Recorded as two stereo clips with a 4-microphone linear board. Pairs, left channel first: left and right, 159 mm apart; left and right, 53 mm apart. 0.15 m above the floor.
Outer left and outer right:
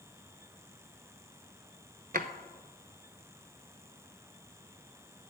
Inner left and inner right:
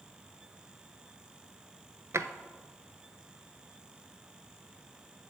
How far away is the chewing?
I don't hear chewing.